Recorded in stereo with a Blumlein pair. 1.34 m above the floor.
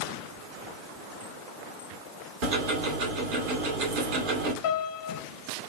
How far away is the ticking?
About 1.3 m.